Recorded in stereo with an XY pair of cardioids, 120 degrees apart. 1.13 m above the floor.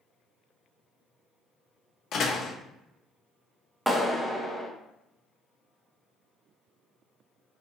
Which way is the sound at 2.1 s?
55° left.